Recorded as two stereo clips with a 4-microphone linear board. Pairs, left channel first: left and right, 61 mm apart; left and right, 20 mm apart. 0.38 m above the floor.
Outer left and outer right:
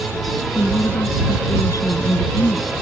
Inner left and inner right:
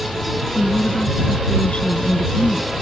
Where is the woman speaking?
70° left (ahead or behind); by 2.7 s 65° left (ahead or behind).